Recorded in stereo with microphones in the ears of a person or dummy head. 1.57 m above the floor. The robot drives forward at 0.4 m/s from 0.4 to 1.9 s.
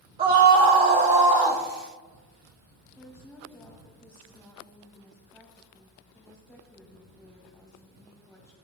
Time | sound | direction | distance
0.2 | a scream | 30° right (ahead or behind) | 1.2 m
3.0 | a woman speaking | 5° left (ahead or behind) | 3.5 m